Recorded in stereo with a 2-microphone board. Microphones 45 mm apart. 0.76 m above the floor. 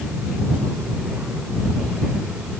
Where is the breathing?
I don't hear breathing.